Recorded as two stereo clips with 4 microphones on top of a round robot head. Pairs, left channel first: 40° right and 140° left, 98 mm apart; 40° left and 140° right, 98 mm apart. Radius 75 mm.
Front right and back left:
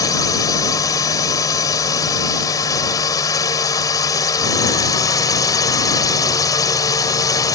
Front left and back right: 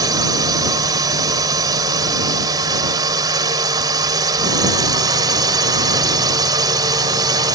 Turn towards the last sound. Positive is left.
turn(degrees=-90)